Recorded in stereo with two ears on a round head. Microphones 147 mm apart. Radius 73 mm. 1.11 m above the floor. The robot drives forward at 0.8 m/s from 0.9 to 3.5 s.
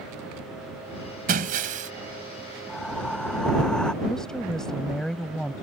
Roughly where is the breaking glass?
Right.